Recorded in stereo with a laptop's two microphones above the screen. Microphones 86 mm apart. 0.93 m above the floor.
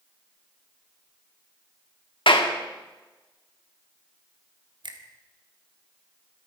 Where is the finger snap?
65° right (ahead or behind), 1.8 m.